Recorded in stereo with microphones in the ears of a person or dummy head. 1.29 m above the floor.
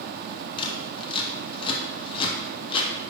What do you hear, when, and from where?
0.6 s scissors: 20° left (ahead or behind), 0.6 m